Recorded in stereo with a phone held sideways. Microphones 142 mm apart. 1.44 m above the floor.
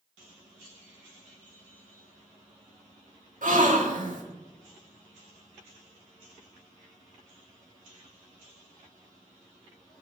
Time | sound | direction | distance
3.4 | a gasp | 65° right (ahead or behind) | 1.9 m